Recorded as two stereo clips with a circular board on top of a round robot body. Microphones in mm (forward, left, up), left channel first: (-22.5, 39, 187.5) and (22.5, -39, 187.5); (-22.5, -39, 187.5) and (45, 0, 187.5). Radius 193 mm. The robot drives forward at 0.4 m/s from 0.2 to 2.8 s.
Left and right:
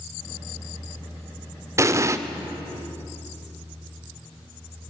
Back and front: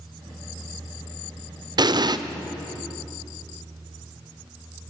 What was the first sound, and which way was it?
An explosion, straight ahead.